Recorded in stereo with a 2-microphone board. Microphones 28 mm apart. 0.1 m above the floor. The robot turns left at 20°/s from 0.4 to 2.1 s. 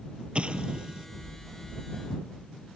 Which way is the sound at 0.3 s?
40° right (ahead or behind).